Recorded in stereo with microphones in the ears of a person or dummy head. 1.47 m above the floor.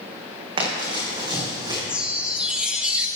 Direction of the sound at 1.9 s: 10° right (ahead or behind).